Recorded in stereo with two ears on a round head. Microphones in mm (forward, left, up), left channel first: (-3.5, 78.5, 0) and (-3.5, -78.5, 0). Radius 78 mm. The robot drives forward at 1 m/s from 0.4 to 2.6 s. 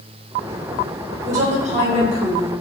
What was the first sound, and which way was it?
A woman speaking, 50° right (ahead or behind).